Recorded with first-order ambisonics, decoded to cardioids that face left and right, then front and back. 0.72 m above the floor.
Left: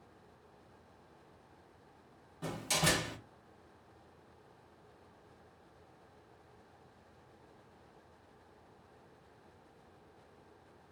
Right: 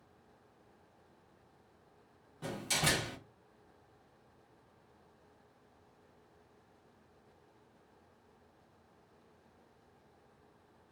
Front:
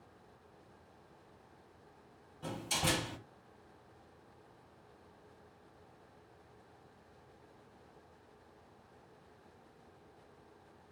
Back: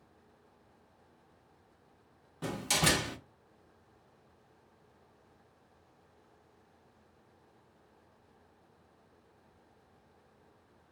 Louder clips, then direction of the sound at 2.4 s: Left 1 dB, back 5 dB; 175° left.